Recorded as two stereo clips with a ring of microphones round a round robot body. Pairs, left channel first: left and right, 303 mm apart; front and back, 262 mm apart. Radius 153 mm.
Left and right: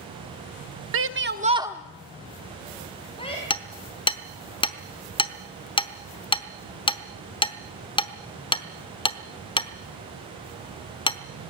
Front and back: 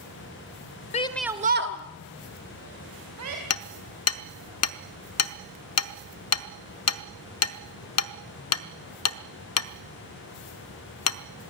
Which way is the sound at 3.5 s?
15° left.